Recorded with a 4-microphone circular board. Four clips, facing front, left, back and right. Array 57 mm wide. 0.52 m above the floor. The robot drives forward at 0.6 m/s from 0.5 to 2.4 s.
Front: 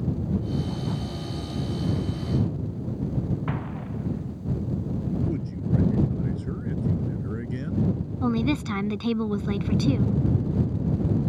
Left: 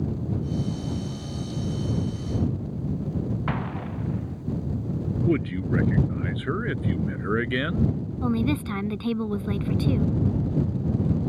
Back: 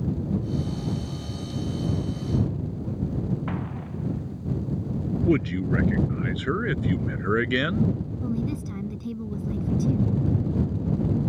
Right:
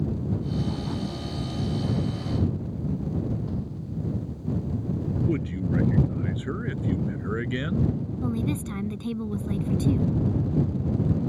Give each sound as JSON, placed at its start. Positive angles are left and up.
{"t": 3.5, "sound": "an explosion", "azimuth_deg": 85}
{"t": 5.2, "sound": "a man speaking", "azimuth_deg": 155}
{"t": 8.2, "sound": "a woman speaking", "azimuth_deg": 30}